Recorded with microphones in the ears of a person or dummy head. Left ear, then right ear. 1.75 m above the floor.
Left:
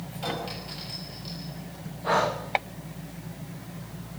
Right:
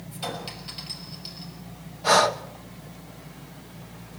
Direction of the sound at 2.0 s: 75° right (ahead or behind).